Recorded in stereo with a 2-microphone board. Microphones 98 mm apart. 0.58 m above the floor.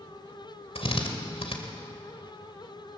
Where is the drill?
70° left (ahead or behind), 2.5 m.